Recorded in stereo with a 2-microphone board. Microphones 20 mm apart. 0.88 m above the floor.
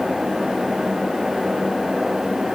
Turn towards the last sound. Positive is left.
No sound to turn to.